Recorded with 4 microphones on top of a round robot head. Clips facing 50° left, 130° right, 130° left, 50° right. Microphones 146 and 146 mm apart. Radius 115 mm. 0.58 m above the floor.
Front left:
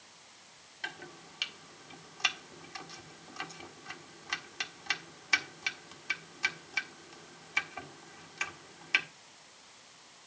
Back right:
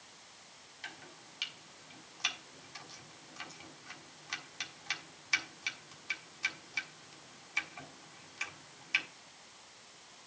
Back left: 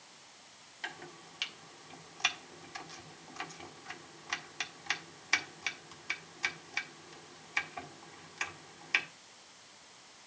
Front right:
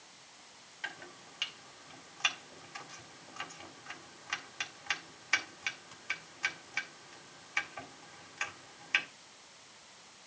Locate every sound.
0.8 s chopping: 75° left, 1.6 m